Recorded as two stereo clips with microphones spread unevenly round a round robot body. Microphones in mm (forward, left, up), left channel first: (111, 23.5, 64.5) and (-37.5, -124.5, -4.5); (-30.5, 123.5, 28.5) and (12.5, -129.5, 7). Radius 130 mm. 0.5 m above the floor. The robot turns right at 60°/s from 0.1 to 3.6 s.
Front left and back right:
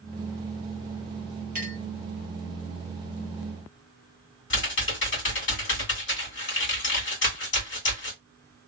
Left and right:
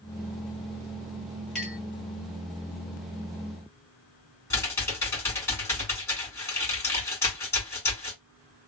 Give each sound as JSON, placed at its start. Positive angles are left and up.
{"t": 1.6, "sound": "a clink", "azimuth_deg": -170, "distance_m": 1.4}
{"t": 4.5, "sound": "typing on a keyboard", "azimuth_deg": 20, "distance_m": 2.0}